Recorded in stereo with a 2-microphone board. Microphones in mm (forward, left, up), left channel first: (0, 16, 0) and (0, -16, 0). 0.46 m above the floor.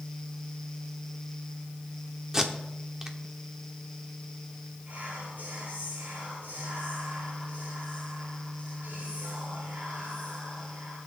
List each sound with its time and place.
2.3 s tape being pulled: 15° right (ahead or behind), 1.0 m
4.9 s whispering: 60° right (ahead or behind), 6 m